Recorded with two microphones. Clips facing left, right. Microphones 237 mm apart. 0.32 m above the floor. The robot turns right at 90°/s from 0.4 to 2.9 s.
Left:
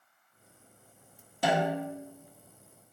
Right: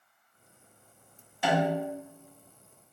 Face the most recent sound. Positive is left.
turn(degrees=-110)